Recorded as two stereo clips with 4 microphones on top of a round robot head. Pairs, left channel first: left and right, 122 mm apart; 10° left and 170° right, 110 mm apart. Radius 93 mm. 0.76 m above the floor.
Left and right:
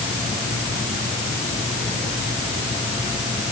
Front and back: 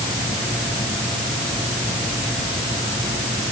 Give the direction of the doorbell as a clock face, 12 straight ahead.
No doorbell in this recording.